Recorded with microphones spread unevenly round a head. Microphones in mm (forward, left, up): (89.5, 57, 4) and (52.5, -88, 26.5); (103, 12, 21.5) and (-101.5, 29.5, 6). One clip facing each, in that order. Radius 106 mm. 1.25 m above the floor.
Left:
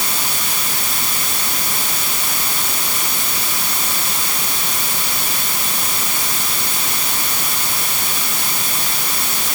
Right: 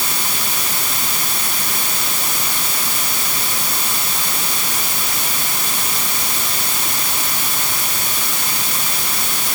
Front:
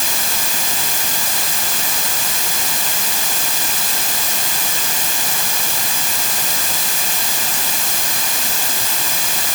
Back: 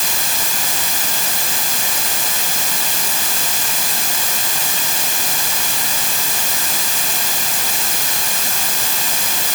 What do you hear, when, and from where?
Only background noise.